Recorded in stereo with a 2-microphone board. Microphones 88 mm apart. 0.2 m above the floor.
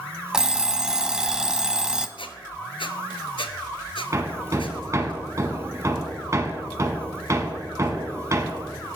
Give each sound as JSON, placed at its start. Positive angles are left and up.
{"t": 0.3, "sound": "an alarm clock", "side_deg": -5, "distance_m": 0.8}
{"t": 2.2, "sound": "a squeak", "side_deg": 75, "distance_m": 1.2}
{"t": 4.1, "sound": "hammering", "side_deg": -35, "distance_m": 1.6}